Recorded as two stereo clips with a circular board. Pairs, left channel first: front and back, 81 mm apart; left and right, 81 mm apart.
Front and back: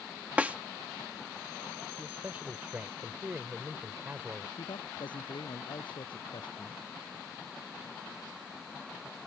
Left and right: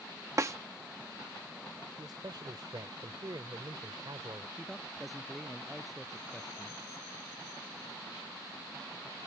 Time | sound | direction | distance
0.4 | a snare drum | 115° right | ?
2.0 | a man speaking | 115° right | ?
4.6 | a man speaking | straight ahead | ?